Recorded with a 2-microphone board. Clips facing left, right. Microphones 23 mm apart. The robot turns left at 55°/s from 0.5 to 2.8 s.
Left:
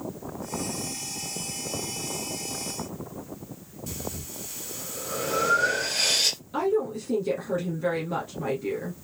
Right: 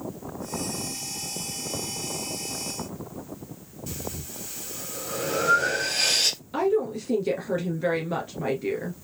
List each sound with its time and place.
3.9 s breathing: 15° right (ahead or behind), 2.5 m
6.5 s a woman speaking: 25° right (ahead or behind), 1.4 m